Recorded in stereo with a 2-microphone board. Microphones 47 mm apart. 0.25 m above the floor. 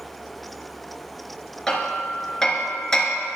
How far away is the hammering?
About 3 m.